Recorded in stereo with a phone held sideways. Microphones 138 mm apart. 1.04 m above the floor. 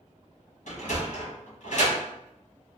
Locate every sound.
0.7 s a sliding door: 65° left (ahead or behind), 1.3 m